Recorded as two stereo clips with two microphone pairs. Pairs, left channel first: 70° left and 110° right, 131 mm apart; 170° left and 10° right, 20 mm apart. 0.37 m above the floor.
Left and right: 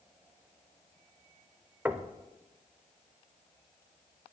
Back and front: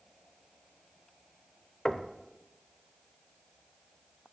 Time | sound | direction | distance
1.9 | knocking | 170° right | 0.6 m